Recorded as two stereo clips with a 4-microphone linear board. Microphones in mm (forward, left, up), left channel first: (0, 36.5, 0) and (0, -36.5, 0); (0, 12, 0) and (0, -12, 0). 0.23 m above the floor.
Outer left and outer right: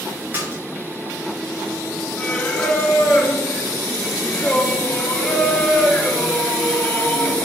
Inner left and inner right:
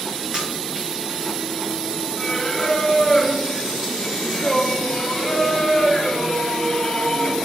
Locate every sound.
0.3 s a splash: 25° right (ahead or behind), 3.5 m
2.2 s singing: 20° left (ahead or behind), 1.3 m